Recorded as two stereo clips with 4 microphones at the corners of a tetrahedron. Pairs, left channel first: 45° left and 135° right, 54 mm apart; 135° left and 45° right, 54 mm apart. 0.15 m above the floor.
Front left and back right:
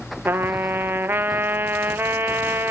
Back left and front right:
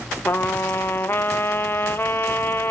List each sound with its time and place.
0.2 s a trumpet: straight behind, 0.5 m